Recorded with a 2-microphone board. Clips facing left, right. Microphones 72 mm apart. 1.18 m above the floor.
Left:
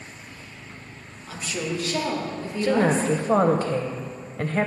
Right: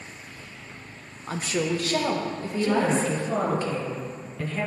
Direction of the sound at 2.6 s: 50° left (ahead or behind).